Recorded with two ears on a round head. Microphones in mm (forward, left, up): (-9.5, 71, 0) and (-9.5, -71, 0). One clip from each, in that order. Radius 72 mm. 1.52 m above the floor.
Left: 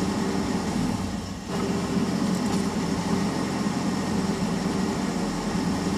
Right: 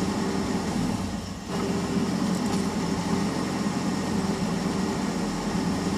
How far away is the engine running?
About 0.7 m.